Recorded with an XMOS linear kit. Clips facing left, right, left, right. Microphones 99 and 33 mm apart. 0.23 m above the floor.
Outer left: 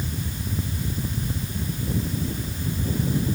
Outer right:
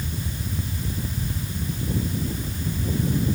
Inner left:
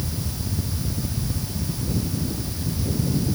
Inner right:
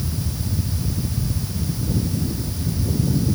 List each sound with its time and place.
Only background noise.